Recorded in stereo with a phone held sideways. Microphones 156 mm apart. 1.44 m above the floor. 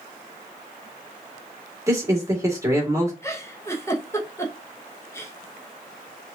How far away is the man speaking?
About 1.5 m.